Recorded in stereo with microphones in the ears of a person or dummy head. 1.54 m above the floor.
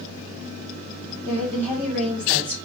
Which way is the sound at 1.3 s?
10° left (ahead or behind).